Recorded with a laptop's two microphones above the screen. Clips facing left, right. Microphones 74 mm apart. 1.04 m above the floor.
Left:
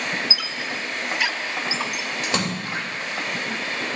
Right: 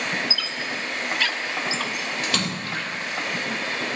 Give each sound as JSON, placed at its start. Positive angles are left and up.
{"t": 0.3, "sound": "a squeak", "side_deg": 15, "distance_m": 0.7}
{"t": 2.2, "sound": "a splash", "side_deg": 20, "distance_m": 2.5}